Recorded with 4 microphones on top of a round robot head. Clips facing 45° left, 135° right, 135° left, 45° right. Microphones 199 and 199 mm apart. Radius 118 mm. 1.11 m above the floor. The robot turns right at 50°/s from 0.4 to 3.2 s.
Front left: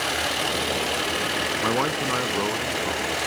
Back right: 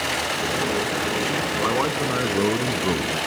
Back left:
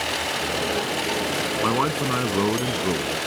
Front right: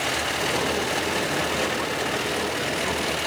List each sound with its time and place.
1.6 s a man speaking: 120° left; by 3.2 s 160° right